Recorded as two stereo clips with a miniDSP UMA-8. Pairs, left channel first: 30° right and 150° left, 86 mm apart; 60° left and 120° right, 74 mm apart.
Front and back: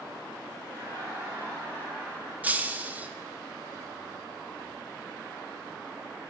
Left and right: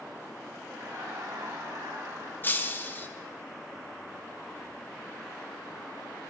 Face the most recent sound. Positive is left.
turn(degrees=100)